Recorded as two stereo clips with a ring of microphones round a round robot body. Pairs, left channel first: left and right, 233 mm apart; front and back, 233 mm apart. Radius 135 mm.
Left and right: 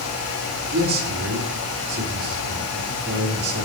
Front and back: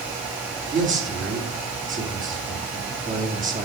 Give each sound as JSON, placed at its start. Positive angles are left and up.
{"t": 0.7, "sound": "a man speaking", "azimuth_deg": -130, "distance_m": 1.9}